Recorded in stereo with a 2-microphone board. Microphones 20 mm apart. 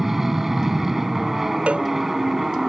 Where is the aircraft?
10° right (ahead or behind); by 2.7 s 15° right (ahead or behind).